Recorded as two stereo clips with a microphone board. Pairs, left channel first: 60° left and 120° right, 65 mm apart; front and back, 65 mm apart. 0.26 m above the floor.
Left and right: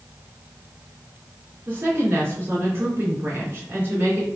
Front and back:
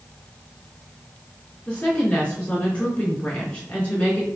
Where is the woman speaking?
70° right, 2.5 m.